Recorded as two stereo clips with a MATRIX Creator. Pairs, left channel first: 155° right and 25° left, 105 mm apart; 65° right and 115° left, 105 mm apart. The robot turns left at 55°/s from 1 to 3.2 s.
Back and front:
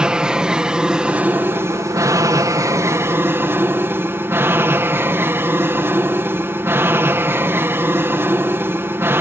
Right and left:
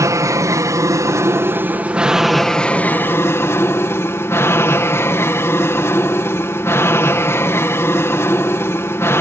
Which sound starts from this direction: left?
An aircraft, at 0.0 s.